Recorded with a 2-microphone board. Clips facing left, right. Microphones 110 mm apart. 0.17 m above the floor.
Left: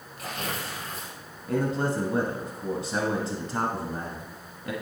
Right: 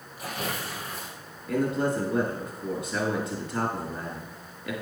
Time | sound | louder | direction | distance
0.2 | tearing paper | right 1 dB | 10° right (ahead or behind) | 3 m
1.5 | a man speaking | right 1 dB | 30° left (ahead or behind) | 1.4 m